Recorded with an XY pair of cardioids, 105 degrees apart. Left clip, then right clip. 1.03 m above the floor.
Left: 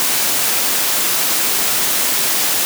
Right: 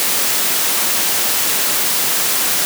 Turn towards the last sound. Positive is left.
No sound to turn to.